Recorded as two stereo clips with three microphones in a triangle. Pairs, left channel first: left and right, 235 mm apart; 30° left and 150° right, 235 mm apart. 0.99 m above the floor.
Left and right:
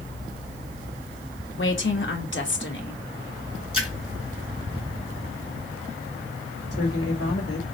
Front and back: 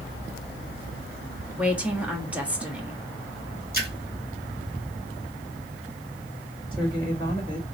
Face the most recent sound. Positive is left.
turn(degrees=100)